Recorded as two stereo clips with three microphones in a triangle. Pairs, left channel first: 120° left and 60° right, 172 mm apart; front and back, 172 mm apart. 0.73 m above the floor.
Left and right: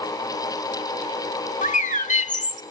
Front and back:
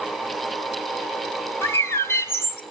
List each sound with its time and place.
1.6 s a bird: 75° left, 1.3 m